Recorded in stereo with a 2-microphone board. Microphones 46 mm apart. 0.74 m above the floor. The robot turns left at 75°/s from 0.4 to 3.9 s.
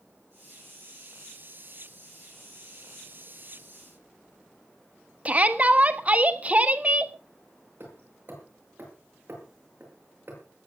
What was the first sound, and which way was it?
A shout, 30° right (ahead or behind).